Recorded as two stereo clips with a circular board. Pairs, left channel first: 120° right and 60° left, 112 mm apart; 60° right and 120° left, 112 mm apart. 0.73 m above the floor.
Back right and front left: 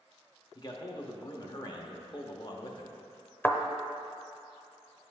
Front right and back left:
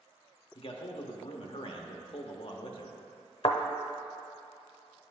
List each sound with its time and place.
0.6 s a man speaking: 80° right, 0.8 m
3.4 s a thud: 50° right, 0.7 m